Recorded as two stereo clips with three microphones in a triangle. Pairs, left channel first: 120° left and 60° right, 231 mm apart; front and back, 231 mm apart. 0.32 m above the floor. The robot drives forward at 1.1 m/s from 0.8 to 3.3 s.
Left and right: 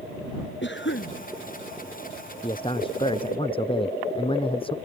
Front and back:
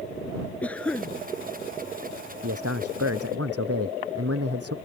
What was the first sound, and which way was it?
A cough, 85° left.